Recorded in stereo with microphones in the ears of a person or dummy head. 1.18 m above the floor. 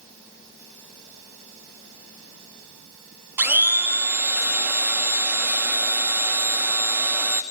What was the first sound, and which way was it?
A blender, 10° right (ahead or behind).